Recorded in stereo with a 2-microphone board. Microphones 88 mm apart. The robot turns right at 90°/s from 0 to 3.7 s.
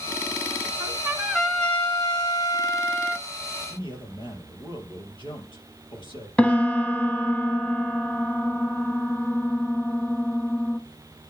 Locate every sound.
0.8 s a trumpet: 55° right, 1.0 m; by 3.3 s 170° left, 1.0 m
3.7 s a man speaking: 75° left (ahead or behind), 5 m
6.4 s a piano: 15° left (ahead or behind), 0.9 m